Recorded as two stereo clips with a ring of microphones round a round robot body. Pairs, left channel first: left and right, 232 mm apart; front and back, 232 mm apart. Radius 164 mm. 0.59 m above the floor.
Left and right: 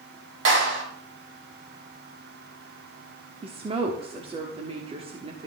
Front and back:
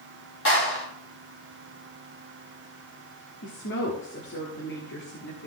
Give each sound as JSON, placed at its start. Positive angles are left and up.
{"t": 0.5, "sound": "a clap", "azimuth_deg": -55, "distance_m": 4.5}
{"t": 3.4, "sound": "a woman speaking", "azimuth_deg": -30, "distance_m": 1.5}